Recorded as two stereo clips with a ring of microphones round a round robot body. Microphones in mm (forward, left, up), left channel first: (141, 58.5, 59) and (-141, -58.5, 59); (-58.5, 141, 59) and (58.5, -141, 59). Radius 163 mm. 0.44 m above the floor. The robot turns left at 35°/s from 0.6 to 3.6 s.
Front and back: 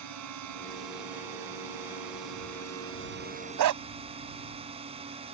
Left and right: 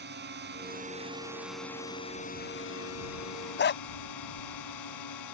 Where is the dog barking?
170° left.